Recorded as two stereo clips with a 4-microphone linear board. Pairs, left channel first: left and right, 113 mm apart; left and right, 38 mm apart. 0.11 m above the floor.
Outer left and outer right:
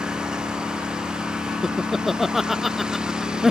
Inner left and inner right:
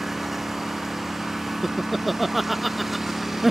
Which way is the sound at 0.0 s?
5° right (ahead or behind).